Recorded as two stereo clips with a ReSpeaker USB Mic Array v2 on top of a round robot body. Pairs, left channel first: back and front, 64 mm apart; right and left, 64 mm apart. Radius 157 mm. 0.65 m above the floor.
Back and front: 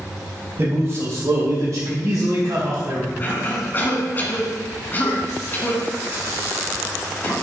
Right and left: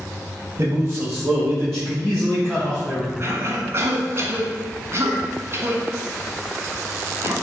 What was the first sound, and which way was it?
A man speaking, 40° left.